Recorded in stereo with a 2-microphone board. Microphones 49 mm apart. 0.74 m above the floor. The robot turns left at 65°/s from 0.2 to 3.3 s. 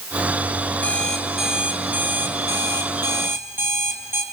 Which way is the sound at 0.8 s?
30° left.